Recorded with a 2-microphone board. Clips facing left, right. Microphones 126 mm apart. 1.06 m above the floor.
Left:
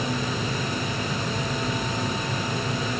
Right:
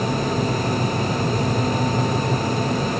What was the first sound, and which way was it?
Only background noise.